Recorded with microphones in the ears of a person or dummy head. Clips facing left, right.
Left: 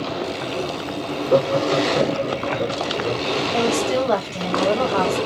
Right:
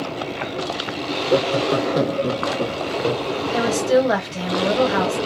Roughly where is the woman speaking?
Centre.